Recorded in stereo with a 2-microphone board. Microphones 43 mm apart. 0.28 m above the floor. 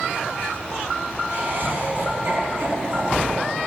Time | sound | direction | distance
1.3 | laughter | 65° right (ahead or behind) | 3 m